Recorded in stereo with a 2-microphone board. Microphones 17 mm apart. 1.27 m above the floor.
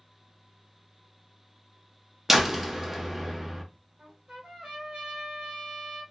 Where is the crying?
No crying in this recording.